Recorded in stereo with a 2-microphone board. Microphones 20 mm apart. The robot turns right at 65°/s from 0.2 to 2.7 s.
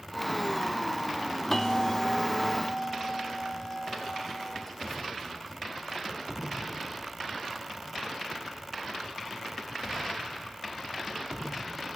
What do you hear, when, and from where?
1.5 s a bell: 25° left (ahead or behind), 0.9 m; by 6.0 s 15° left (ahead or behind), 0.9 m